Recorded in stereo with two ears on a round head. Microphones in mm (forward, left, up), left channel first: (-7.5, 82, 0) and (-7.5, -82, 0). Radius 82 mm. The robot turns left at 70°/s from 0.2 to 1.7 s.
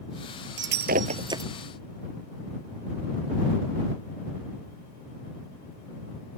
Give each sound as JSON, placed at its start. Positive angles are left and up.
{"t": 0.6, "sound": "breaking glass", "side_deg": -75}